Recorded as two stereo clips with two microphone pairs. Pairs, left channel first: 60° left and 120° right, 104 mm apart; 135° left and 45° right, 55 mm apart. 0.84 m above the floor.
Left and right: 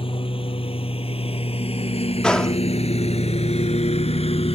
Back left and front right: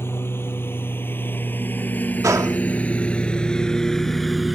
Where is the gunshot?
20° right.